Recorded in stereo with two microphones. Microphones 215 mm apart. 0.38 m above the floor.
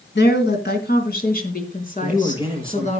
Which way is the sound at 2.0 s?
25° left (ahead or behind).